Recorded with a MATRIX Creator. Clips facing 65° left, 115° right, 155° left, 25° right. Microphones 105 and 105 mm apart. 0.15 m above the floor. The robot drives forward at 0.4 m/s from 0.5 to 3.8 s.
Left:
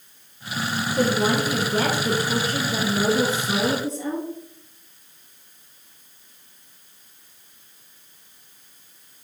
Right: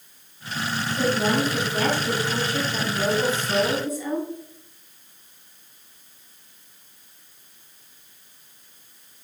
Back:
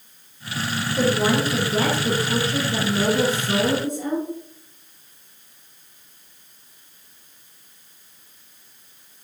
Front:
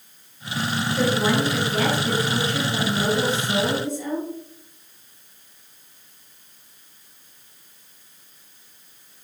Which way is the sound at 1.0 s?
85° left.